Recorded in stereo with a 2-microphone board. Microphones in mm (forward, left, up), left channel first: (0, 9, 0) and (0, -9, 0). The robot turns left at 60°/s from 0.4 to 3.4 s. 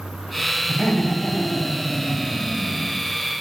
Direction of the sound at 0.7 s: 120° left.